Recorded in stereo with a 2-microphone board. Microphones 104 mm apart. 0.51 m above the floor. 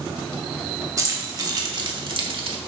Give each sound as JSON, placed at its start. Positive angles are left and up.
{"t": 1.0, "sound": "keys jangling", "side_deg": -35, "distance_m": 1.9}